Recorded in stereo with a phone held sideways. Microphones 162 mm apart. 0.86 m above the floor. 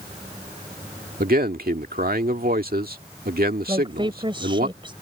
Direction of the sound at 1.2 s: 70° right (ahead or behind).